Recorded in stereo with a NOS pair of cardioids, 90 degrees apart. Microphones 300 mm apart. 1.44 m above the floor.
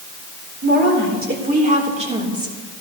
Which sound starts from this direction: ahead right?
A woman speaking, at 0.6 s.